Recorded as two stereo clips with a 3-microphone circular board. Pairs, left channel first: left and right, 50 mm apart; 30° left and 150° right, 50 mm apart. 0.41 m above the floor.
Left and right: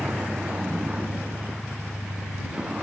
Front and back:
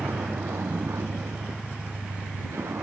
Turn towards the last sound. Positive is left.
turn(degrees=-160)